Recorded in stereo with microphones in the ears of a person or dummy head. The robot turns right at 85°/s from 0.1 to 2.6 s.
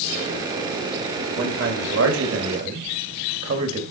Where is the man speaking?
140° right, 2 m; by 3.8 s 35° right, 2 m.